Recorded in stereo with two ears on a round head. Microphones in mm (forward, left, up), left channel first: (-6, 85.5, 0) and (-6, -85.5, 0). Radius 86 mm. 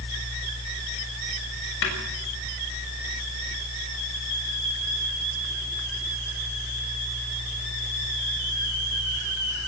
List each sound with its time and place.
1.8 s a snare drum: 75° left (ahead or behind), 6.5 m